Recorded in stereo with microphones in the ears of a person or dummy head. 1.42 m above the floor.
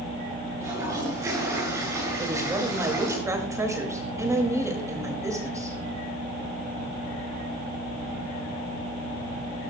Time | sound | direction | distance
0.6 | a toilet flushing | 15° right (ahead or behind) | 7 m
2.2 | a woman speaking | 20° right (ahead or behind) | 2.5 m